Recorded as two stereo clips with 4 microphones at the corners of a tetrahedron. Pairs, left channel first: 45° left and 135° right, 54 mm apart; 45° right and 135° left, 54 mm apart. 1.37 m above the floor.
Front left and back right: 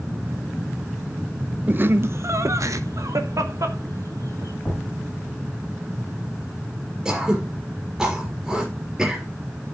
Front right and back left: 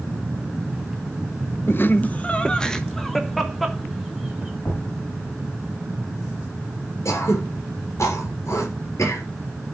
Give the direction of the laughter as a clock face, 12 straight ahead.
3 o'clock.